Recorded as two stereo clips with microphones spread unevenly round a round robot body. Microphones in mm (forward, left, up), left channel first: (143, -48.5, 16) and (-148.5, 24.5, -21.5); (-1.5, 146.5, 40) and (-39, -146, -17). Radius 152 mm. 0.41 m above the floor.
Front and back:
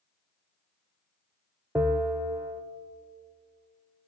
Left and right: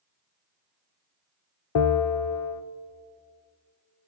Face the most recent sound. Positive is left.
turn(degrees=90)